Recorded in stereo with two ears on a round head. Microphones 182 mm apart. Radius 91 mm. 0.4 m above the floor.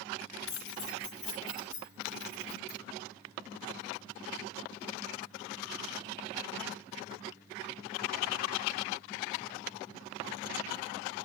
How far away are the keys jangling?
About 3 m.